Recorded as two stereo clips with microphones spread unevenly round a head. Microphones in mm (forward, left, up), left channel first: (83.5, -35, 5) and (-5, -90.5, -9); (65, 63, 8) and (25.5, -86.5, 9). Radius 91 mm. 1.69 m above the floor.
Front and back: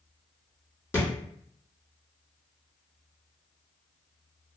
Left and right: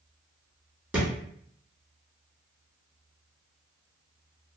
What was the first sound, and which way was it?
A thud, 30° right.